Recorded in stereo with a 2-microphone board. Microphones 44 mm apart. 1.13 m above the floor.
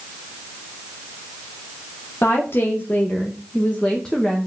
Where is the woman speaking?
60° left (ahead or behind), 1.6 m; by 4.5 s 10° left (ahead or behind), 1.4 m.